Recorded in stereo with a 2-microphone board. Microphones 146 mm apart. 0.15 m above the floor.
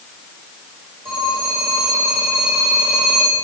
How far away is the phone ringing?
About 9.5 m.